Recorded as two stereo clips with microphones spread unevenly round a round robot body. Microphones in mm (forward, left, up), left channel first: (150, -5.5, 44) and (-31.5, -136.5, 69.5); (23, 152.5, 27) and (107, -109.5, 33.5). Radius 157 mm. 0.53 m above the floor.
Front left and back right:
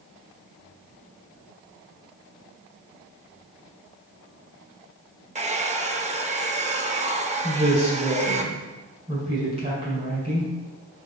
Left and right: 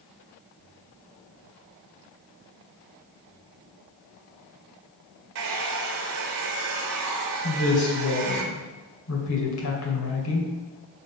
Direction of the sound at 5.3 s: 80° right.